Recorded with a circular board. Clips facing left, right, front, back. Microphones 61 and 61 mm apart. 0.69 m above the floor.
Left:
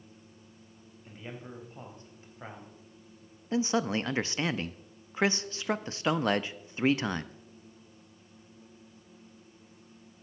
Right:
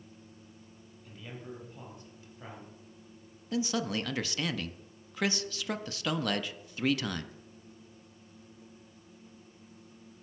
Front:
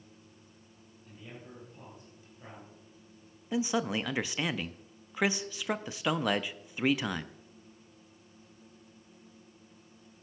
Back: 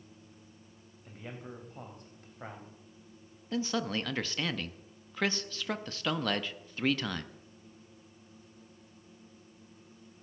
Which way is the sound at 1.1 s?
150° left.